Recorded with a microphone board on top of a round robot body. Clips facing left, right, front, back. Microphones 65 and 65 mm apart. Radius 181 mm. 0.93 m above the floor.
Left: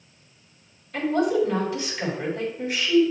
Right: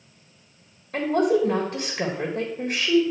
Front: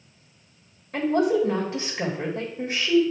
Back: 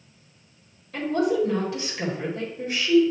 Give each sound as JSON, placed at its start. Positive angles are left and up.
{"t": 0.9, "sound": "a woman speaking", "azimuth_deg": -60, "distance_m": 1.6}